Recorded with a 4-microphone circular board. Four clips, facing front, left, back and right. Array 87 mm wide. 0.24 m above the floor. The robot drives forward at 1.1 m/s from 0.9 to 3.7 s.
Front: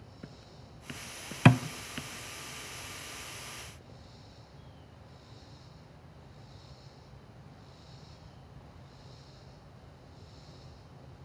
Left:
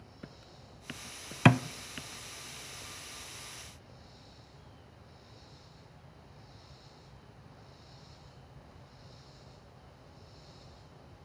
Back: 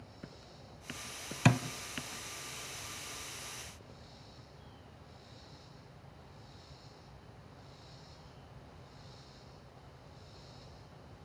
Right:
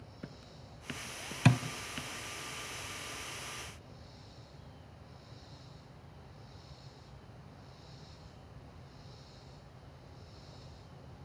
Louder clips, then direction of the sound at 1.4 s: Left 5 dB, front 6 dB; 60° left.